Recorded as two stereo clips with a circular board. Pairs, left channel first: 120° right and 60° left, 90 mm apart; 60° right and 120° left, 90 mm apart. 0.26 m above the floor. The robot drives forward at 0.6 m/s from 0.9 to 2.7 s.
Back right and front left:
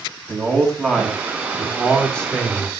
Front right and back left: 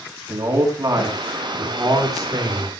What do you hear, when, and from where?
0.3 s a man speaking: 160° left, 3 m; by 2.7 s 165° left, 4 m